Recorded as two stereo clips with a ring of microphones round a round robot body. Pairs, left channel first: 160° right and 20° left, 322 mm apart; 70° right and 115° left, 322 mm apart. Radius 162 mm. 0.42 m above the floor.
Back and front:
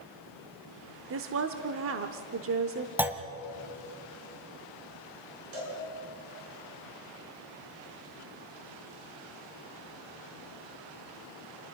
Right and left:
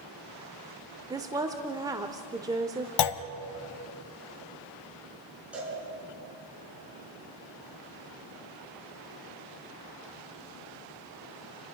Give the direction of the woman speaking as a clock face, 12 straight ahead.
11 o'clock.